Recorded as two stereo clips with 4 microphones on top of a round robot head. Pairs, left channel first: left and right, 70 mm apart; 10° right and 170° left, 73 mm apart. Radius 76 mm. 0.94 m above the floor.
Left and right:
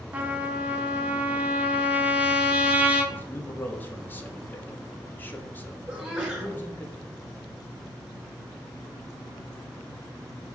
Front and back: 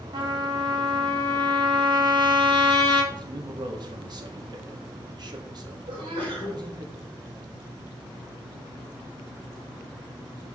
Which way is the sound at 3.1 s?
150° left.